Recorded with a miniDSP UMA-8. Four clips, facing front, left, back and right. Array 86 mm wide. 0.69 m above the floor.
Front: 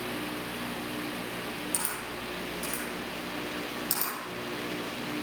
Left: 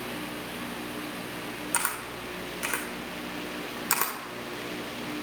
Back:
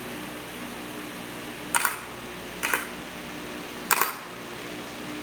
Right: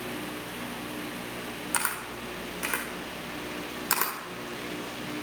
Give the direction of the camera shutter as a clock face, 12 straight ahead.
6 o'clock.